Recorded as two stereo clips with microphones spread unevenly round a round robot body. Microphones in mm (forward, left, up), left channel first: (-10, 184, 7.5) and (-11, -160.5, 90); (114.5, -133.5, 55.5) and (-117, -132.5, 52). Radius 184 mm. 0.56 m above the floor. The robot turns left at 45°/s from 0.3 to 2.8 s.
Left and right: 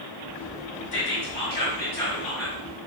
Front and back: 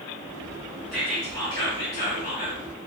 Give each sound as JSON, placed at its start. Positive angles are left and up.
{"t": 0.9, "sound": "whispering", "azimuth_deg": 85, "distance_m": 1.4}